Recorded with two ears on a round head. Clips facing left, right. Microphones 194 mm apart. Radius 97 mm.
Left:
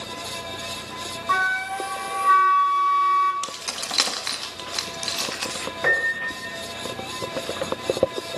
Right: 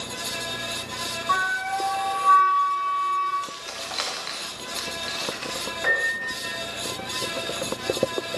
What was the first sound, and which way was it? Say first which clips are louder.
A flute: even; 30° left (ahead or behind).